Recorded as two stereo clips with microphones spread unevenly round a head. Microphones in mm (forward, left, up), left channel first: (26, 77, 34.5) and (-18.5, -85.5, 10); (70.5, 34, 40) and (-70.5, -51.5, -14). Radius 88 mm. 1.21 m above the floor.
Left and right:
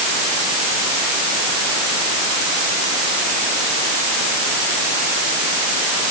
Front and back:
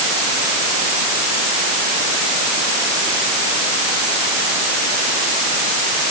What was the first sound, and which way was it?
Only background noise.